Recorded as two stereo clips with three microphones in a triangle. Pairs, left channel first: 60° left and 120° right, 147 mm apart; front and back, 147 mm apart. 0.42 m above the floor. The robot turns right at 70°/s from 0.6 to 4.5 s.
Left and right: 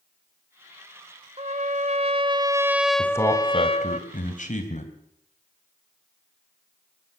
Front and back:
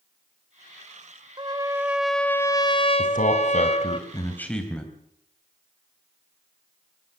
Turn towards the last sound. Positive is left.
turn(degrees=85)